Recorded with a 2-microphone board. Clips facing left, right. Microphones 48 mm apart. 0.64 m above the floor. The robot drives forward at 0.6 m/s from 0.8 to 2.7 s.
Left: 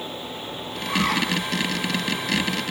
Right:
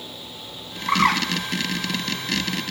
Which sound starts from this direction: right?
A bird, at 0.9 s.